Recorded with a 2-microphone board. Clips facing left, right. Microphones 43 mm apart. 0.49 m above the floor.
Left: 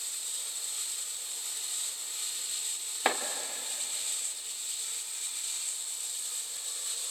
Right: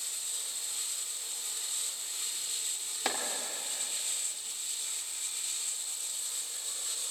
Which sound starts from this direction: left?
Chopping, at 3.0 s.